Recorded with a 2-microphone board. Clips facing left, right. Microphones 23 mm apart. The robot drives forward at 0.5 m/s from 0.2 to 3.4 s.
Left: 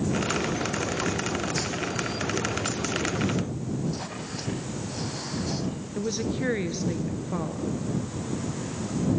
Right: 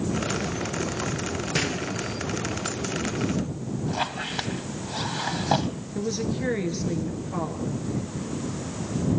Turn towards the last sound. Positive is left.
turn(degrees=15)  # may be behind; listen again after turning